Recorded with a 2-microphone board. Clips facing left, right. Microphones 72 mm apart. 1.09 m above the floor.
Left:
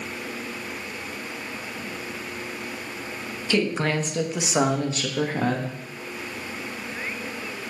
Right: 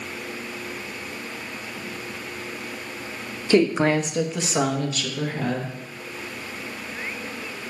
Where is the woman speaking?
30° right (ahead or behind), 1.0 m; by 5.7 s 50° left (ahead or behind), 1.4 m.